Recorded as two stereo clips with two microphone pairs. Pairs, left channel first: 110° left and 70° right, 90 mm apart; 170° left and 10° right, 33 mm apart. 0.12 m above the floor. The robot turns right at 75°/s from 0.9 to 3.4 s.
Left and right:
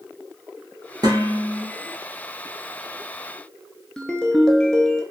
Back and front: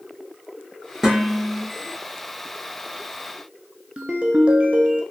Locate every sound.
1.0 s dishes clattering: 85° right, 1.3 m; by 1.6 s 35° right, 1.3 m
4.0 s a ringtone: 35° left, 0.7 m